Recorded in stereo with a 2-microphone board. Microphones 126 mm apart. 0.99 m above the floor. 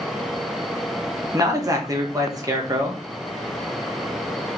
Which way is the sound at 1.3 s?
25° right (ahead or behind).